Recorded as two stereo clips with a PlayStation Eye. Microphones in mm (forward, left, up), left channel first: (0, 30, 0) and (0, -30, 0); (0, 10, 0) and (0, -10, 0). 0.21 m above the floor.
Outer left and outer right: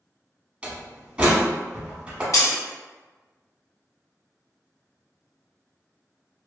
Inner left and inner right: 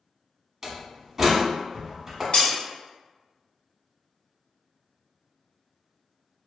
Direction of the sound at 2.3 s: 65° left (ahead or behind).